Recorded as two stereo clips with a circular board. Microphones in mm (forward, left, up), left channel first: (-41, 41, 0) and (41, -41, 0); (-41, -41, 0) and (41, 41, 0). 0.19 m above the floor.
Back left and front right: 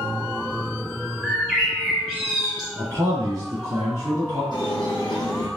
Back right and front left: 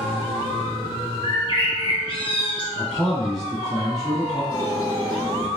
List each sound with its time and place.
1.2 s a bird: 125° right, 1.4 m
2.8 s a man speaking: 45° right, 1.7 m
4.5 s a squeak: 85° left, 1.4 m